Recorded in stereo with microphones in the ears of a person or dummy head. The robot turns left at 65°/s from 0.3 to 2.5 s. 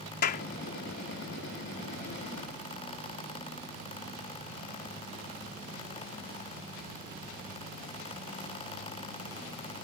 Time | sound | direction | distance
0.2 | a clap | 50° left (ahead or behind) | ?